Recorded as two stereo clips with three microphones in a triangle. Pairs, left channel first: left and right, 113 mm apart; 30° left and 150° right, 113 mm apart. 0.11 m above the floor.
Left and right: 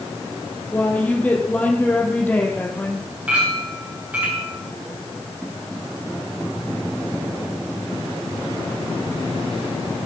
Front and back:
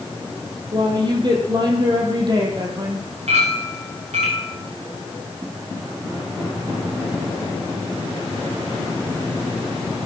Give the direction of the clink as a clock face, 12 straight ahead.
6 o'clock.